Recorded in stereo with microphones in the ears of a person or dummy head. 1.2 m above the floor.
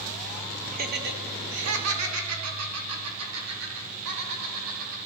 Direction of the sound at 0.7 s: 40° right (ahead or behind).